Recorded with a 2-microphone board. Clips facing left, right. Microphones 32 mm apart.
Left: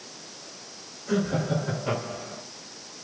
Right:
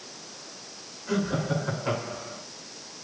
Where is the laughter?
20° right (ahead or behind), 7 m; by 2.4 s 25° right (ahead or behind), 7.5 m.